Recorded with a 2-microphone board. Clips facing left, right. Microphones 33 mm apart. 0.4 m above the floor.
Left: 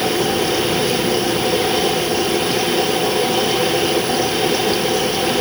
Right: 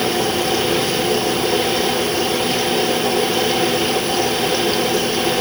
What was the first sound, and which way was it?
Only background noise.